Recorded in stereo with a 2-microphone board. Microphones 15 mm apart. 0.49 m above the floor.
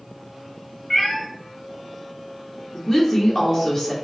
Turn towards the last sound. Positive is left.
turn(degrees=30)  # may be behind; listen again after turning